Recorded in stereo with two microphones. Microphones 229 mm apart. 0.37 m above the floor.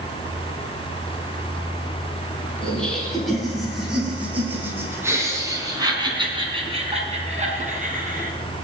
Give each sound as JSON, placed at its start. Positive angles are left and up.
{"t": 2.6, "sound": "laughter", "side_deg": 5, "distance_m": 5.5}